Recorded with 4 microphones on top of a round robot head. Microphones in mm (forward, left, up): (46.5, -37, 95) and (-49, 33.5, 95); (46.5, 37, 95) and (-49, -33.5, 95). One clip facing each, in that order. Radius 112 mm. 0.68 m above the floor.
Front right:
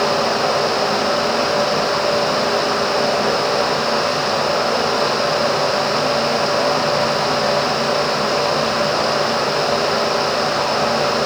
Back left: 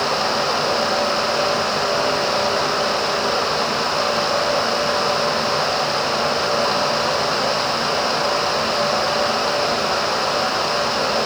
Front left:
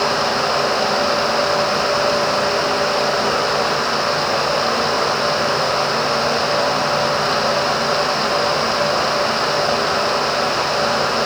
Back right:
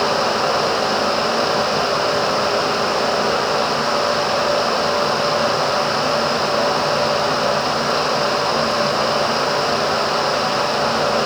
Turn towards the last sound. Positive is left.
No sound to turn to.